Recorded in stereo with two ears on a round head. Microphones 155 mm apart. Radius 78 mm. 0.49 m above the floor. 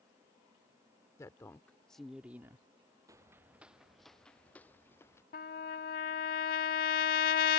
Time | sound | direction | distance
1.2 | a woman speaking | 20° left (ahead or behind) | ?
3.1 | footsteps | 20° right (ahead or behind) | ?
5.3 | a trumpet | 50° left (ahead or behind) | ?